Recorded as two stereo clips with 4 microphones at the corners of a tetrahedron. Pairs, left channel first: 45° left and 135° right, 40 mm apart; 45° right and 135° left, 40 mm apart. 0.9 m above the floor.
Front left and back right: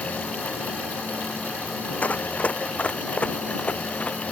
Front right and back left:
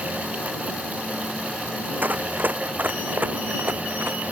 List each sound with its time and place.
2.0 s running footsteps: 100° left; by 4.2 s 105° left